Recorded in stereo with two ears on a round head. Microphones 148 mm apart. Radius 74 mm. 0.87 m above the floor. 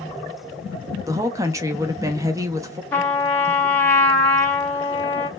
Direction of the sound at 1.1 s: 20° right (ahead or behind).